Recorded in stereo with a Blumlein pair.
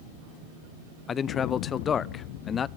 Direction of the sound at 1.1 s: 25° left.